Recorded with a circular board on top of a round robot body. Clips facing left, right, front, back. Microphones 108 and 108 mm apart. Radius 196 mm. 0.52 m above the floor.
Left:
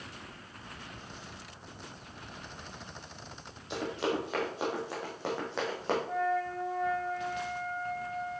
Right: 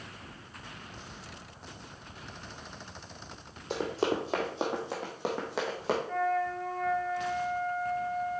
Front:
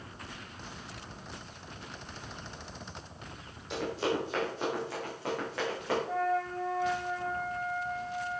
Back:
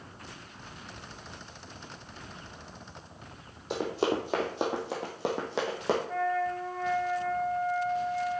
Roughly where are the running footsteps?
Behind right.